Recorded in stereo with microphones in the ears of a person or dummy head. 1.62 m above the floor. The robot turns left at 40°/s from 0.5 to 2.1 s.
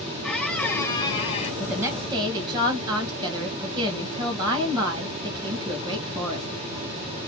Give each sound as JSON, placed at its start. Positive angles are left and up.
{"t": 0.2, "sound": "a squeak", "azimuth_deg": 175, "distance_m": 0.9}
{"t": 1.6, "sound": "a woman speaking", "side_deg": 0, "distance_m": 2.0}